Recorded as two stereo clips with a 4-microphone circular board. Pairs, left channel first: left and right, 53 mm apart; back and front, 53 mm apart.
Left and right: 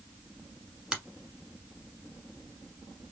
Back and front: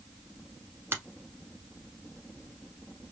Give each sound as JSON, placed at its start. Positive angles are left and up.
{"t": 0.9, "sound": "a finger snap", "azimuth_deg": -20, "distance_m": 1.1}